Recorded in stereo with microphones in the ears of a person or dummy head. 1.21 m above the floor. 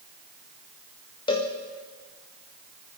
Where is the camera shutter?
No camera shutter in this recording.